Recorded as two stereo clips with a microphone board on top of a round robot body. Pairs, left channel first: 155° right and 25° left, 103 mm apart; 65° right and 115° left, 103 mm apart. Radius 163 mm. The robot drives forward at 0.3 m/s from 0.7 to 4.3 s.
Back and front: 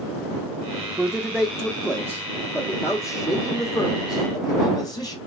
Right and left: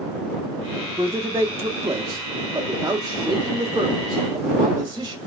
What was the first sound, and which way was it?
A man speaking, 90° left.